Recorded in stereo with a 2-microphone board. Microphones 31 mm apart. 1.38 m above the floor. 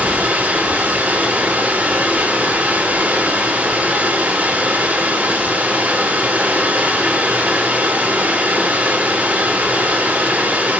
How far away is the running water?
About 3 m.